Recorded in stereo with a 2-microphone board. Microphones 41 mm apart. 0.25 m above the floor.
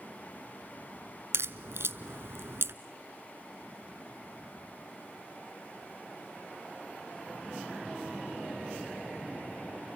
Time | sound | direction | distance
1.3 | a crack | 75° right (ahead or behind) | 1.0 m